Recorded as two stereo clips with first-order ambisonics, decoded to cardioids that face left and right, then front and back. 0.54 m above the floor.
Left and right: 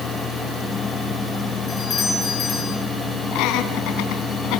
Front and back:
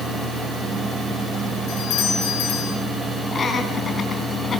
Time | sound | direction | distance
1.7 | a doorbell | 25° left | 5 m
3.3 | laughter | 65° left | 4 m